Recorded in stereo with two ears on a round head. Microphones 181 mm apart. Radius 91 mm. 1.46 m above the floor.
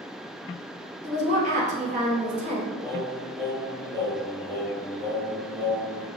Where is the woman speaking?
35° right (ahead or behind), 1.2 m.